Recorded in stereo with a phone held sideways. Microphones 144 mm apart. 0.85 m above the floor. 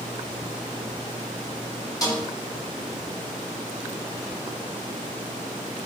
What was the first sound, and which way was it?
A snare drum, 25° left (ahead or behind).